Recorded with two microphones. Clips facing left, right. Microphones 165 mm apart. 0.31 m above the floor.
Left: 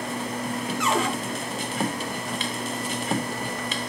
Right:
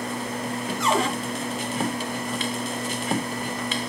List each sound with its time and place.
0.8 s a cupboard door: 35° right (ahead or behind), 1.8 m